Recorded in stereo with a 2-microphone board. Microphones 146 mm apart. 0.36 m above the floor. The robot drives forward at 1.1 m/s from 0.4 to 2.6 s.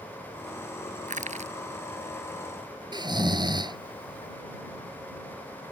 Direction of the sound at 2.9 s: 30° right (ahead or behind).